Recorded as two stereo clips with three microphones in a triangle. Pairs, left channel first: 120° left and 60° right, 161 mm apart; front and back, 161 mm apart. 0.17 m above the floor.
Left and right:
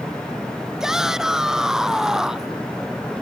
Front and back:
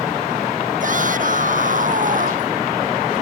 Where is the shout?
145° right.